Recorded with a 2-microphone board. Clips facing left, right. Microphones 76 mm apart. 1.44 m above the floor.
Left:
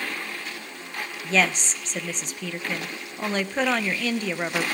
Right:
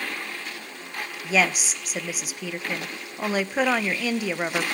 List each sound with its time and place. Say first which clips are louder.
1.2 s a woman speaking: even; 5° right (ahead or behind), 0.9 m